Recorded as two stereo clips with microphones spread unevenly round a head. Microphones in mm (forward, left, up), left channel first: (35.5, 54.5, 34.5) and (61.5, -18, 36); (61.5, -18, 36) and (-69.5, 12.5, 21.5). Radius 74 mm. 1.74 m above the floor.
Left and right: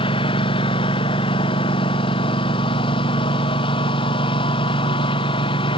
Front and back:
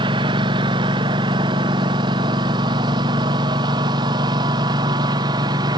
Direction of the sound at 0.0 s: 110° left.